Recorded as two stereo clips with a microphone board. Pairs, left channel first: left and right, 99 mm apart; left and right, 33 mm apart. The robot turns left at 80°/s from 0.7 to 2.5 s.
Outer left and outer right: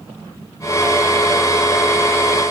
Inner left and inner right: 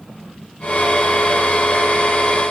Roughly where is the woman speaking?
No woman speaking in this recording.